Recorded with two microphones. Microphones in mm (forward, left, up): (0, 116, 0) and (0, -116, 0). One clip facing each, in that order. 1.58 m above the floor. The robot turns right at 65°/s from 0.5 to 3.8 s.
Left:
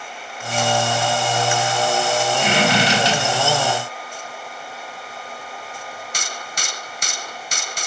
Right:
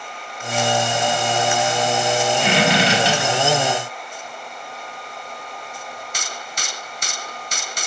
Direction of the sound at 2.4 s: 50° right (ahead or behind).